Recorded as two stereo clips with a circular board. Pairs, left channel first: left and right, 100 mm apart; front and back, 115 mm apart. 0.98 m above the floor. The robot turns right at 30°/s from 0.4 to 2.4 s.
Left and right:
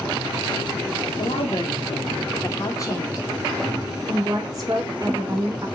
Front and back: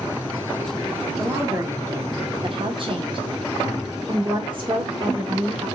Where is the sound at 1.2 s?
105° left, 1.1 m; by 3.3 s 140° left, 1.1 m.